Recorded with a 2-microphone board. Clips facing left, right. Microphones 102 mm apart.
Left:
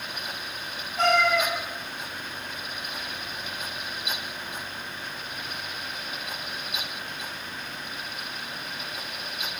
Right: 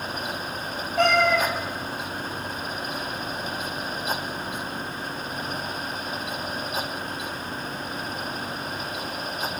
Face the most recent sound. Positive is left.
turn(degrees=-65)  # may be behind; listen again after turning